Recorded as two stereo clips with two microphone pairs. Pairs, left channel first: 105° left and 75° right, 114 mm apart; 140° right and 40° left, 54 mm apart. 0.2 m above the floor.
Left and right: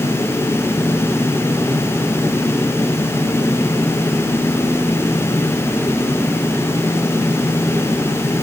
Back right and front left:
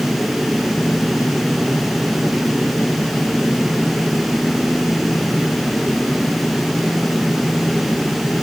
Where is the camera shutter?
I don't hear a camera shutter.